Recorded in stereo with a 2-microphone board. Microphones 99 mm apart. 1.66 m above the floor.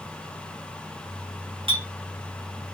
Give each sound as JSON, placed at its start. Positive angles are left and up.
{"t": 1.7, "sound": "a clink", "side_deg": -65, "distance_m": 1.6}